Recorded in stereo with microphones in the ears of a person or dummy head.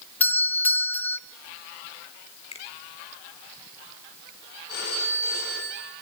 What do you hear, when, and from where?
0.2 s a doorbell: 10° left (ahead or behind), 0.9 m
2.5 s a finger snap: 35° left (ahead or behind), 5 m
4.7 s a phone ringing: 55° left (ahead or behind), 7.5 m